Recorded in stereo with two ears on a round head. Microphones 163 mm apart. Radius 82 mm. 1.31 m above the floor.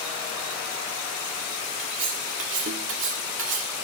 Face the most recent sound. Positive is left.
turn(degrees=-75)  # may be behind; listen again after turning